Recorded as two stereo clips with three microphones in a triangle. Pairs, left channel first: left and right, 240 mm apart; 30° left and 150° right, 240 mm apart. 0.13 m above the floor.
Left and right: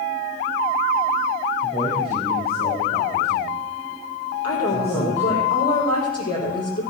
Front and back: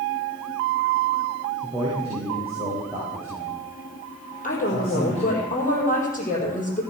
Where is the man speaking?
145° left, 6 m; by 5.4 s 140° left, 9.5 m.